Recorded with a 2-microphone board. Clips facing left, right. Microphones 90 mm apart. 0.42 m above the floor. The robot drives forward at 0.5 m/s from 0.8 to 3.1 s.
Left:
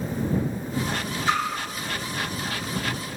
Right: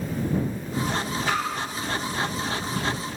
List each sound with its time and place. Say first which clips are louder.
1.3 s a splash: left 3 dB; 30° left (ahead or behind), 0.6 m